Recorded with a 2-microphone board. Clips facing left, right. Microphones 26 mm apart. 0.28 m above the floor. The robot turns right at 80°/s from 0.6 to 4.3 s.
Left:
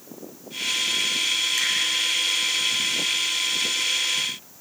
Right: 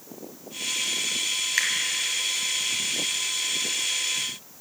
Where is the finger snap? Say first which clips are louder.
Even; 40° right (ahead or behind), 1.9 m; by 1.7 s 45° right (ahead or behind), 1.9 m.